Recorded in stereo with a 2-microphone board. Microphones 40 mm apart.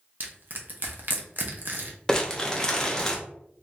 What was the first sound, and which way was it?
Crushing, 50° right (ahead or behind).